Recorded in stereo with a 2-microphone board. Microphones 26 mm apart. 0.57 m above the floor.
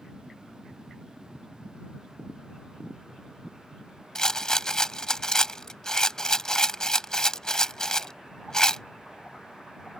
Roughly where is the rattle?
Left.